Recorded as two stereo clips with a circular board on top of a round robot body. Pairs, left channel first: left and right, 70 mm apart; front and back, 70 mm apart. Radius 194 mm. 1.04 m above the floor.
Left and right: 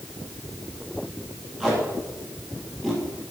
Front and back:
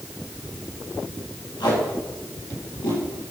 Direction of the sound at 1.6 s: Straight ahead.